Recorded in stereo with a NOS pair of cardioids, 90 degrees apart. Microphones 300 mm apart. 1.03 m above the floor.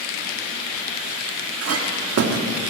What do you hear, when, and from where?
1.6 s a clink: 55° right, 1.2 m